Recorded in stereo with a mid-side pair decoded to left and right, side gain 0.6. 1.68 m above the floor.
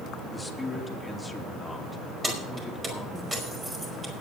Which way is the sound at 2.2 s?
20° right.